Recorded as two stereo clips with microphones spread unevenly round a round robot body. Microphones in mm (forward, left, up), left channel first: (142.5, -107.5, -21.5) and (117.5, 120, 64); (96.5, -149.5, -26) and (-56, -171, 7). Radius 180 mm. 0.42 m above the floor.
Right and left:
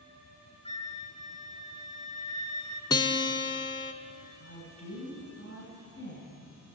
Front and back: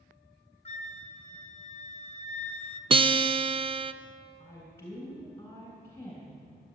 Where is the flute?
30° right, 1.7 m.